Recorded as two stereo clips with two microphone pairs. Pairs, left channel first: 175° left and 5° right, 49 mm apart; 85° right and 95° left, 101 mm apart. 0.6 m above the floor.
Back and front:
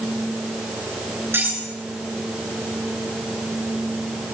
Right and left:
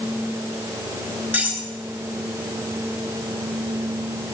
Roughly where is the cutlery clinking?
Ahead left.